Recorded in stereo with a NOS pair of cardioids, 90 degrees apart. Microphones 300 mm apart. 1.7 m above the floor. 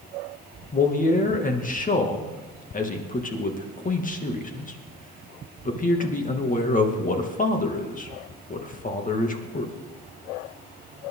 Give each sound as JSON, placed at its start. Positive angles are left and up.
{"t": 0.7, "sound": "a man speaking", "azimuth_deg": 25, "distance_m": 2.5}